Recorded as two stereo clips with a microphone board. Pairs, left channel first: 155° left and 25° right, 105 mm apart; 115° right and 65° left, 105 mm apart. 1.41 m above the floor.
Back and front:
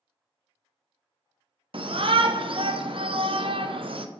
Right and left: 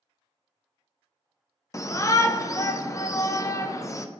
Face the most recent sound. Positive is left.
turn(degrees=-55)